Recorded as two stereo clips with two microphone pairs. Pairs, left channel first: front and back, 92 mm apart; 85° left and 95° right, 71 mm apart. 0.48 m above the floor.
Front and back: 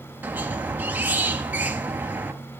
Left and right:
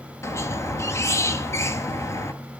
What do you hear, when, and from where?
0.2 s a squeak: 115° left, 0.6 m